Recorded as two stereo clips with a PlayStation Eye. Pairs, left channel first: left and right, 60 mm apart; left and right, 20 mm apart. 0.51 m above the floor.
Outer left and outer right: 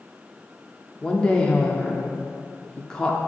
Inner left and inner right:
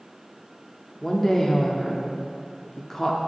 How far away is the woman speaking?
About 0.7 m.